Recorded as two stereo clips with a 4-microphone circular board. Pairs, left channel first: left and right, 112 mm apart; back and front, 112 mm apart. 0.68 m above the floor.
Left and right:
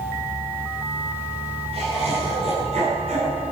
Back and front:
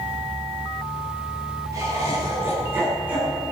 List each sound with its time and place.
1.7 s laughter: 60° right, 8 m; by 3.4 s 80° right, 7 m